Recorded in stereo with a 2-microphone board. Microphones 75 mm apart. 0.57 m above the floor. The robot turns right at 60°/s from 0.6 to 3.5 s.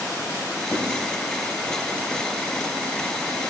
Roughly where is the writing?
Left.